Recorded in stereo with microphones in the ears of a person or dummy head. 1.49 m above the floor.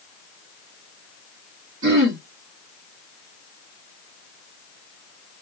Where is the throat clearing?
60° right (ahead or behind), 1.4 m.